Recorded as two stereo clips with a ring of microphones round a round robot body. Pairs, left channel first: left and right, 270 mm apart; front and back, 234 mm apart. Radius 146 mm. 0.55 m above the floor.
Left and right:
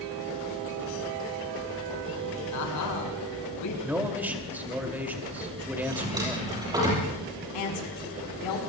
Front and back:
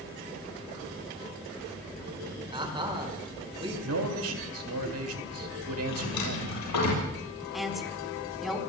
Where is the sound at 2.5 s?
110° left, 5.5 m.